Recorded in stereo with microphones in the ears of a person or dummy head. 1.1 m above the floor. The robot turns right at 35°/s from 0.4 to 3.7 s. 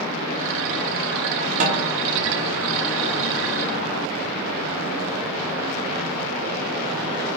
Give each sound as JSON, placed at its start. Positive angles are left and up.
{"t": 1.6, "sound": "a snare drum", "side_deg": -40, "distance_m": 0.9}